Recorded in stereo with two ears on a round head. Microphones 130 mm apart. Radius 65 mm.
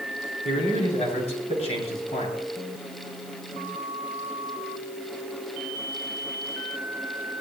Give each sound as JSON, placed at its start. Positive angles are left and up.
{"t": 0.5, "sound": "a man speaking", "side_deg": 45, "distance_m": 9.0}